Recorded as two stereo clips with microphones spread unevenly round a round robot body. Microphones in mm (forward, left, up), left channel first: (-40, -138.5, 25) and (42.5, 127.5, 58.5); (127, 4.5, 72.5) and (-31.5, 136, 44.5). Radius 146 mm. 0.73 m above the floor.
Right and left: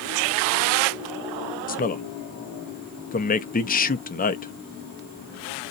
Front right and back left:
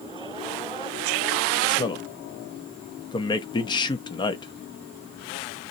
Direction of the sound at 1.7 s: 105° right.